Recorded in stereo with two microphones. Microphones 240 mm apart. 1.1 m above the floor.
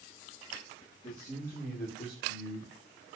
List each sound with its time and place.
1.0 s a man speaking: 35° left (ahead or behind), 1.6 m; by 2.7 s 55° left (ahead or behind), 1.1 m